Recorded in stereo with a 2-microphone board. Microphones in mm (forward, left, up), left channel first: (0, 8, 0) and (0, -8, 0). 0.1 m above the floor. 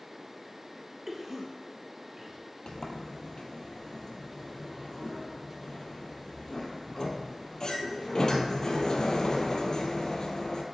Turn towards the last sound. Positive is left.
turn(degrees=50)  # may be behind; listen again after turning